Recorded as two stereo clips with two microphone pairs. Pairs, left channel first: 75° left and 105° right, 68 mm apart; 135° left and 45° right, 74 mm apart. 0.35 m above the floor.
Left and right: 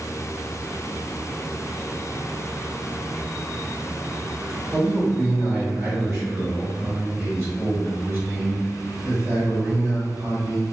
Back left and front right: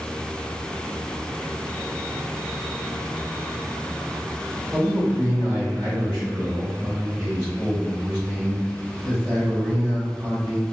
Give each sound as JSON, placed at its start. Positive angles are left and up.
{"t": 4.7, "sound": "a man speaking", "azimuth_deg": -85, "distance_m": 1.5}